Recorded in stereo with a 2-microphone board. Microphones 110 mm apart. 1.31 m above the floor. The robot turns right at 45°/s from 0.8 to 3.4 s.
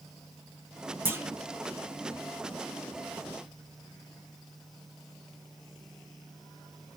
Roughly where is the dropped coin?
No dropped coin in this recording.